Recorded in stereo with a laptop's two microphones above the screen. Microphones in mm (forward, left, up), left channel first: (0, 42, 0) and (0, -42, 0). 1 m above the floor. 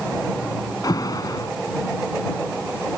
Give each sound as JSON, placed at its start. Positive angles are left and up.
{"t": 0.8, "sound": "an alarm", "side_deg": 50}